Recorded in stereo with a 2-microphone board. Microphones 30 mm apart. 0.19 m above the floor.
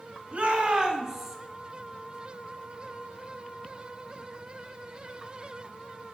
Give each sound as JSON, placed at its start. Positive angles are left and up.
{"t": 0.3, "sound": "a shout", "side_deg": -40, "distance_m": 1.3}